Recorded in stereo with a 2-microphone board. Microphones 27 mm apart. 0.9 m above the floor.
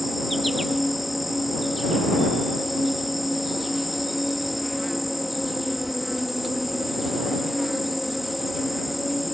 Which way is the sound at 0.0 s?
5° right (ahead or behind).